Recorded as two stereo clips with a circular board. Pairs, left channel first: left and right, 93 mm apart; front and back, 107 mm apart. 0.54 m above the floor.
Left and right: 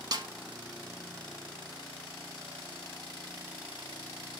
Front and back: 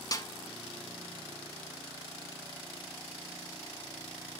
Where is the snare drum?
50° right, 0.8 m.